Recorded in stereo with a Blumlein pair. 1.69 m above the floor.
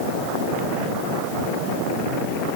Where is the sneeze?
No sneeze in this recording.